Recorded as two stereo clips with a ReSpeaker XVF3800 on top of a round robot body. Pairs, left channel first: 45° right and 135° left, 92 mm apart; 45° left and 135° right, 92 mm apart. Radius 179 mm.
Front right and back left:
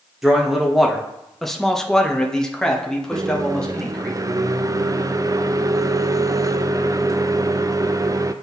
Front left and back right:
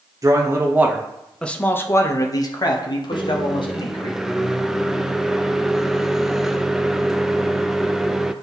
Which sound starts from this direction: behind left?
A microwave, at 3.1 s.